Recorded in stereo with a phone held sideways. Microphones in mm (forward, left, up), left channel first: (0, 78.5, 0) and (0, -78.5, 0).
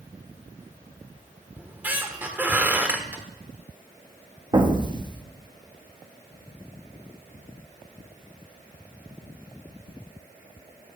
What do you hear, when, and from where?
1.6 s a squeak: 10° right (ahead or behind), 1.1 m
4.5 s an explosion: 30° right (ahead or behind), 1.1 m